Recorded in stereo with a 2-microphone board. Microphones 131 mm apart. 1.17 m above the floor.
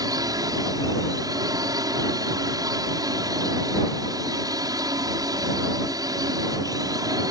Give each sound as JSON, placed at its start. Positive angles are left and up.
{"t": 0.0, "sound": "a drone", "side_deg": -30}